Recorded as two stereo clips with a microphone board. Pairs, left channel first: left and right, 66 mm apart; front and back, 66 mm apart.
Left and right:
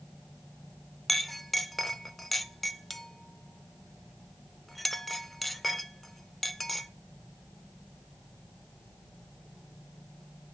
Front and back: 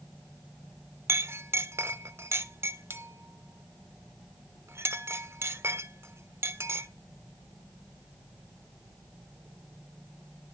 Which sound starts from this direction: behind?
A clink, at 1.1 s.